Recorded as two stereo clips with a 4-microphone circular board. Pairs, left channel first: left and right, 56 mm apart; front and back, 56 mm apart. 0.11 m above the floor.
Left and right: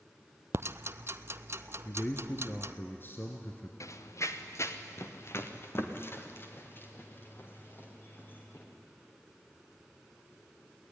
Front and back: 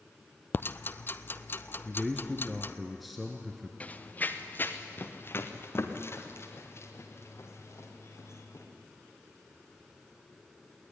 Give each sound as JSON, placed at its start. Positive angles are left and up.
{"t": 0.5, "sound": "ticking", "azimuth_deg": -50, "distance_m": 0.5}
{"t": 1.9, "sound": "a man speaking", "azimuth_deg": 90, "distance_m": 2.0}
{"t": 3.8, "sound": "running footsteps", "azimuth_deg": 65, "distance_m": 1.6}